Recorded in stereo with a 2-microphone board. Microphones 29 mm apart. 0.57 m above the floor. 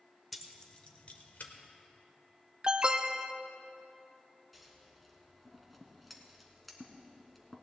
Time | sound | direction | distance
0.3 | keys jangling | 5° left (ahead or behind) | 1.1 m
2.6 | an alarm | 35° right (ahead or behind) | 0.6 m
4.5 | scissors | centre (ahead or behind) | 1.6 m